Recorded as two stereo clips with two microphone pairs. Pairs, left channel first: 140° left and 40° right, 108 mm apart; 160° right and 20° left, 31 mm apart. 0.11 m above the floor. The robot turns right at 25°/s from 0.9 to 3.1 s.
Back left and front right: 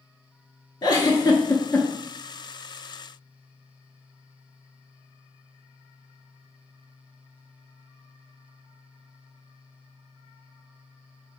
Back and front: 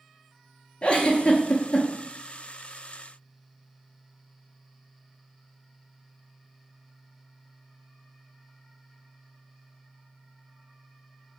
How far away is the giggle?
About 0.5 m.